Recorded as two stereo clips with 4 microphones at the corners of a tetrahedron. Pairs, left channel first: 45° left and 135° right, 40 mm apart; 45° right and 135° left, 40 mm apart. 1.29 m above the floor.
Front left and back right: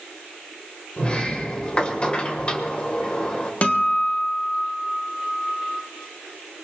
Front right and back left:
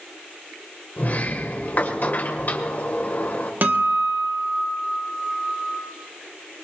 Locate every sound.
1.0 s a sliding door: 15° right, 1.6 m
3.6 s a guitar: 100° left, 1.4 m